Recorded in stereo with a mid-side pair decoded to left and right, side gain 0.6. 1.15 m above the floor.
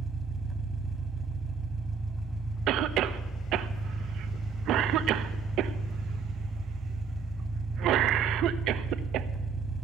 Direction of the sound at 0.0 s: 15° right.